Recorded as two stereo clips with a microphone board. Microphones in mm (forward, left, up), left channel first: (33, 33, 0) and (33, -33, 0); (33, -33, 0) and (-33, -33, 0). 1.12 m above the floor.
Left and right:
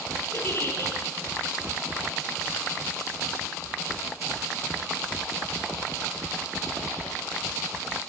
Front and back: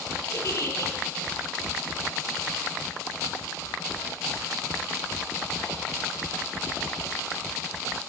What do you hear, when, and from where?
0.3 s a giggle: 40° left, 5.5 m